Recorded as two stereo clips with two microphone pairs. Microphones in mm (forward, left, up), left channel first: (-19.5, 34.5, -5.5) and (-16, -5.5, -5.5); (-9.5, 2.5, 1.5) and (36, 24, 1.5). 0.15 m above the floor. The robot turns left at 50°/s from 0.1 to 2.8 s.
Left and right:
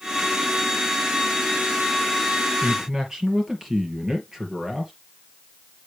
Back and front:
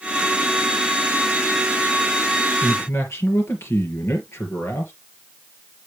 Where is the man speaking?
150° right, 2.5 m; by 4.9 s 160° right, 2.5 m.